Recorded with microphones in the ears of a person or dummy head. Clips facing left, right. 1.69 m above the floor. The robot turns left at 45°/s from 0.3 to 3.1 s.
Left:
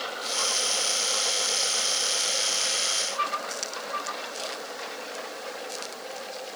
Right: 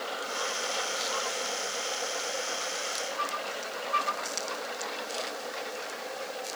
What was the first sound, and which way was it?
Only background noise.